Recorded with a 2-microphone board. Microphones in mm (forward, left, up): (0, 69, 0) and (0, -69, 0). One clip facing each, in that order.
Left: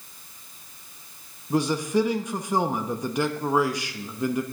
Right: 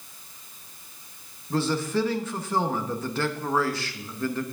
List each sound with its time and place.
1.5 s a man speaking: 15° left (ahead or behind), 0.9 m